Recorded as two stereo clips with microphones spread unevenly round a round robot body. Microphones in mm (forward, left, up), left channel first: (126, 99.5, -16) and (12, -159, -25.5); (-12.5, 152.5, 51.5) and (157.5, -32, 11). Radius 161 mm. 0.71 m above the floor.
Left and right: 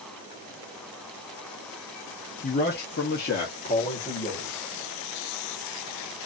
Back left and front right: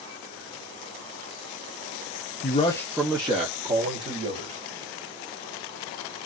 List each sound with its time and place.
2.4 s a man speaking: 105° left, 0.6 m; by 4.6 s straight ahead, 1.8 m